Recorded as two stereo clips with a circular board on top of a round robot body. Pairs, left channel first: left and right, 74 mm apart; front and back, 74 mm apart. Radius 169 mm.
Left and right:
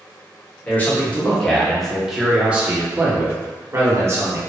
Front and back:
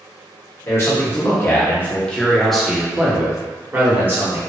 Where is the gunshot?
I don't hear a gunshot.